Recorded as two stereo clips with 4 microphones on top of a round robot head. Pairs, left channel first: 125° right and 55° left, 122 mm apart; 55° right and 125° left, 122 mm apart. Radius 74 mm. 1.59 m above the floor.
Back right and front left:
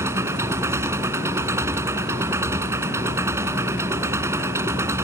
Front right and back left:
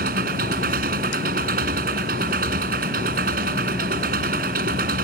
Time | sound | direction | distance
0.0 | an engine running | 125° left | ?